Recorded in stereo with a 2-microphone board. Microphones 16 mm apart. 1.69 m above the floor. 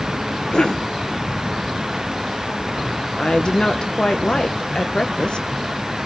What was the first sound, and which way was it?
A cough, 85° left.